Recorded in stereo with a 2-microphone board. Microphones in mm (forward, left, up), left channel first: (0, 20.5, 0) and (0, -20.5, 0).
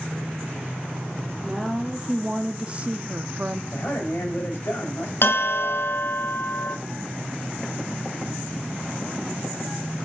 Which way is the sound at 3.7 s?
60° left (ahead or behind).